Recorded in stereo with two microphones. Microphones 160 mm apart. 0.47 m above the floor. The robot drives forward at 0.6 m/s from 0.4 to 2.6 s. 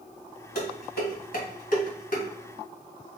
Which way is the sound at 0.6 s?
75° left (ahead or behind).